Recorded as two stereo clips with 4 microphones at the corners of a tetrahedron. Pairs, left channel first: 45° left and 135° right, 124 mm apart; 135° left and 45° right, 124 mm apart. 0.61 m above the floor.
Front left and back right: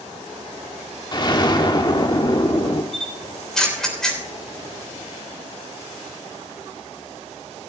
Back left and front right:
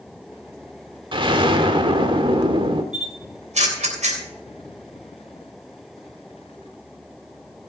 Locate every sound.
1.1 s an explosion: 5° right, 1.3 m
2.9 s a camera shutter: 40° right, 3 m